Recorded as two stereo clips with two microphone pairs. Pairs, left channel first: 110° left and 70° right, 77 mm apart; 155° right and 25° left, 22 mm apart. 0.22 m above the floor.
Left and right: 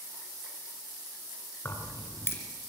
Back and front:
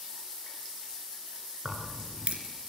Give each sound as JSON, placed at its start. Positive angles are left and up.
{"t": 1.6, "sound": "keys jangling", "azimuth_deg": 55, "distance_m": 2.5}